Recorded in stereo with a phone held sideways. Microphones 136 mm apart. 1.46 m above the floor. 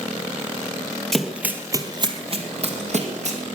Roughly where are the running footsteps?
Centre.